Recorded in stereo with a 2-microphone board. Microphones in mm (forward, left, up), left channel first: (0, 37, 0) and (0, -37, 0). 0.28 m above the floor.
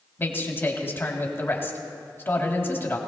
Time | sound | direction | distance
0.2 | a man speaking | 30° left (ahead or behind) | 1.9 m